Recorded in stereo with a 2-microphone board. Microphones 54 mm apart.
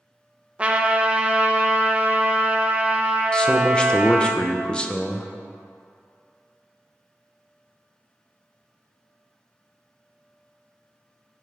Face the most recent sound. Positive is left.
turn(degrees=15)  # may be behind; listen again after turning